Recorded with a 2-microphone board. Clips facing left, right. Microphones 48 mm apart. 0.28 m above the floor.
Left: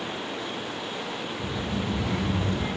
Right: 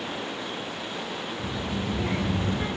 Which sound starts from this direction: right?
A child speaking, at 1.4 s.